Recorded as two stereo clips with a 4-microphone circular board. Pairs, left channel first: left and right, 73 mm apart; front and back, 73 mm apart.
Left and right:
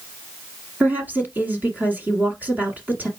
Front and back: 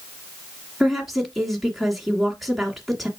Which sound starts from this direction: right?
A woman speaking, at 0.8 s.